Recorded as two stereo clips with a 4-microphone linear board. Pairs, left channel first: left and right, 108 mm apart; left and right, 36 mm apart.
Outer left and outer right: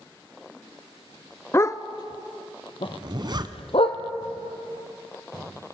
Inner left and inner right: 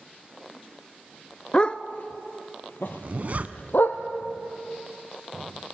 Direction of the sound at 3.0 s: 40° right (ahead or behind).